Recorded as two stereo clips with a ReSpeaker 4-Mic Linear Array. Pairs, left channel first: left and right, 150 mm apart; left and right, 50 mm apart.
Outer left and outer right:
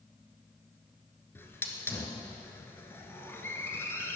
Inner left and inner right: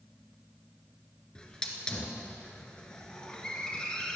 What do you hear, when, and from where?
1.4 s a hiss: 15° left (ahead or behind), 1.6 m